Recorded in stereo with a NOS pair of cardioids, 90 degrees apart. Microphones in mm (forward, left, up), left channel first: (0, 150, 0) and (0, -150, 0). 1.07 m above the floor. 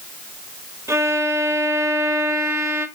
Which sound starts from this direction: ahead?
A violin, at 0.9 s.